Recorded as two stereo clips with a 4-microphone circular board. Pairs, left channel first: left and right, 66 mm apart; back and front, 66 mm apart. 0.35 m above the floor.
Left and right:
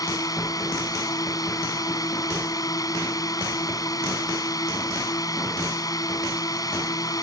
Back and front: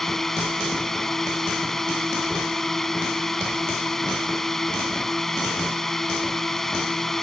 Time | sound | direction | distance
0.0 | a drone | 95° left | ?